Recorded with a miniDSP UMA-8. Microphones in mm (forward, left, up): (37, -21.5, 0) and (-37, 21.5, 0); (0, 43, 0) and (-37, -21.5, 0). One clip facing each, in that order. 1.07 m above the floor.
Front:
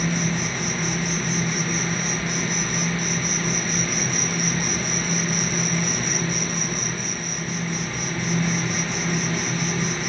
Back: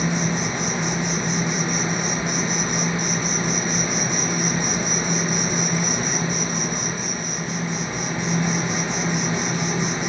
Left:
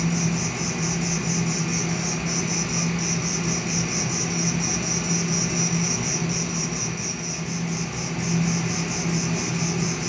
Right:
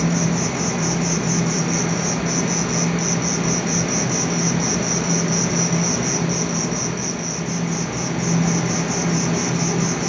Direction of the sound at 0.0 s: 145° right.